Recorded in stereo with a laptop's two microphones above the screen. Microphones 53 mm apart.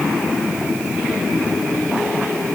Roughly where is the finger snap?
I don't hear a finger snap.